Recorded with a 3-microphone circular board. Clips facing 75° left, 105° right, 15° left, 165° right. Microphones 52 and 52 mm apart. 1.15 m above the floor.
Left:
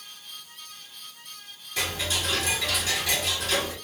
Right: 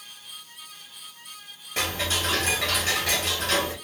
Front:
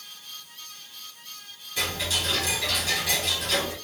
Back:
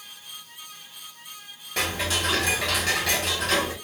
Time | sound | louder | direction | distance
1.8 | ticking | right 2 dB, back 3 dB | 150° right | 1.9 m